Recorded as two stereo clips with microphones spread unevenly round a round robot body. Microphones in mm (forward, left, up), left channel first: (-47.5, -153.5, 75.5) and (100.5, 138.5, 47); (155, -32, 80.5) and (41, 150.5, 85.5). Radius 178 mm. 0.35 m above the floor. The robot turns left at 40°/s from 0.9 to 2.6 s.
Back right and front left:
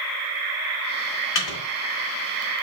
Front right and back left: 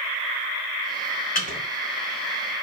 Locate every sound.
1.4 s a microwave: 100° right, 1.0 m; by 1.6 s 110° right, 1.0 m